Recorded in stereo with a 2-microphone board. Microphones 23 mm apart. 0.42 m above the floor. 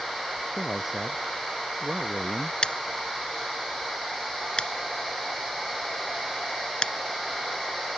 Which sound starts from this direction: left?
Scissors, at 2.6 s.